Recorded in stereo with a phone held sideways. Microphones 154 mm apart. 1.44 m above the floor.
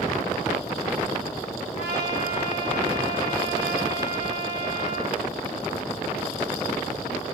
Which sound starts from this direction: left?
A trumpet, at 1.7 s.